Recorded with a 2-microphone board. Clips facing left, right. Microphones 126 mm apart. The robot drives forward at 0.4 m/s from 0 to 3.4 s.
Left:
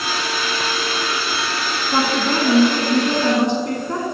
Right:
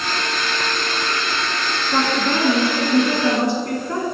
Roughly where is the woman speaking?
Centre.